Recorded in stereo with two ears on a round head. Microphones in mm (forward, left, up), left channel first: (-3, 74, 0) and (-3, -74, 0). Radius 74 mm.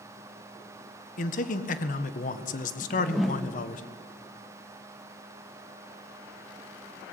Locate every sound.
1.2 s a man speaking: 50° left (ahead or behind), 1.6 m
2.8 s a whoosh: centre (ahead or behind), 1.2 m